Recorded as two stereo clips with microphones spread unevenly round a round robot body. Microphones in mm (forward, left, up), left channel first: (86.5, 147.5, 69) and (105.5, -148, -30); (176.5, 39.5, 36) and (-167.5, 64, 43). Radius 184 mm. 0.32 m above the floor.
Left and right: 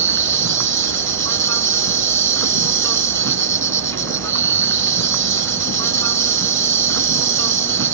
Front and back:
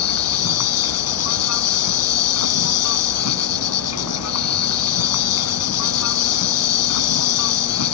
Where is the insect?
50° right.